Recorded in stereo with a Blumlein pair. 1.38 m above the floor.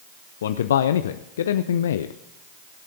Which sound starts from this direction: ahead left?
A man speaking, at 0.4 s.